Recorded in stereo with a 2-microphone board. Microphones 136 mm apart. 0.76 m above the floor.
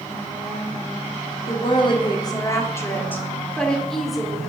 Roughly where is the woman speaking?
Left.